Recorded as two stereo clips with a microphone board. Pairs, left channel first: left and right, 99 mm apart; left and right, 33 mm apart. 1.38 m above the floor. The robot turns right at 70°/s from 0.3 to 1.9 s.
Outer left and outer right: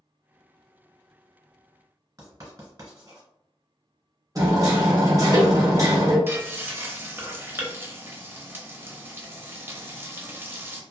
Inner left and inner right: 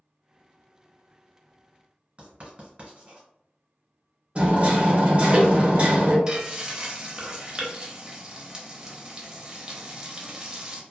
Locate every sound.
2.2 s writing: 35° right (ahead or behind), 1.4 m
4.3 s hammering: 35° right (ahead or behind), 0.9 m
6.3 s frying: 20° right (ahead or behind), 0.6 m